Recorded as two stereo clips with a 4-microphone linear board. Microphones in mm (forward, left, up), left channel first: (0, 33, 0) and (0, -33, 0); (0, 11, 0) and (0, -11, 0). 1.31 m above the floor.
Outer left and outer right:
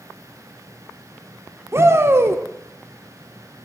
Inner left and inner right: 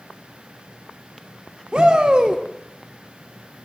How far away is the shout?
About 0.5 m.